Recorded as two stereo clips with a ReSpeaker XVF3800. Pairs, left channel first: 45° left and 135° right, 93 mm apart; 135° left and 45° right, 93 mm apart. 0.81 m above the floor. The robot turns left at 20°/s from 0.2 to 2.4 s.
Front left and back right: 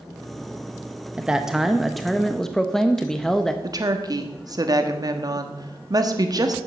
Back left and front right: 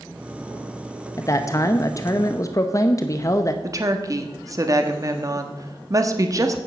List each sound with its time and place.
1.2 s a man speaking: 155° left, 0.7 m; by 3.5 s 130° left, 0.7 m
3.6 s a woman speaking: 95° right, 1.2 m